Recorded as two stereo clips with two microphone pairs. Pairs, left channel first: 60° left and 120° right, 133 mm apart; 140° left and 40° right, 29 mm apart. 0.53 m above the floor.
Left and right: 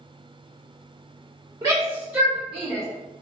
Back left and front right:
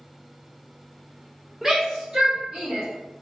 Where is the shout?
100° right, 1.3 m; by 2.9 s 25° right, 1.7 m.